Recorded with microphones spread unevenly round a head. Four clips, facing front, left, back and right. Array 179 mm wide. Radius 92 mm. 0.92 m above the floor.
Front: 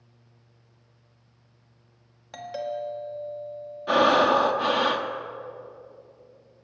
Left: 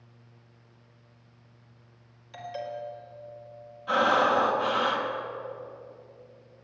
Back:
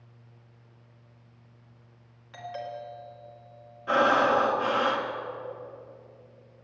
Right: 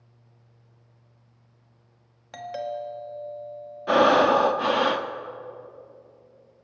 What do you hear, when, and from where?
2.3 s a doorbell: 45° right, 1.8 m
3.9 s breathing: 75° right, 0.8 m